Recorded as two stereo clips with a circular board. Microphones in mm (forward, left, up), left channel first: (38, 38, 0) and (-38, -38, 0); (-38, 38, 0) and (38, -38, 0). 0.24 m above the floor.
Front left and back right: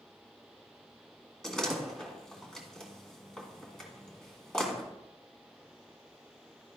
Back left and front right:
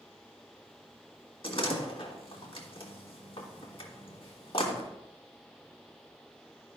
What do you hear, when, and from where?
1.4 s a door slam: 130° left, 1.9 m